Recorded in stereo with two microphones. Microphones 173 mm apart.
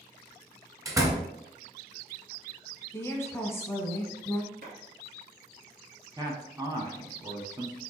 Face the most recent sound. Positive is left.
turn(degrees=-20)  # may be behind; listen again after turning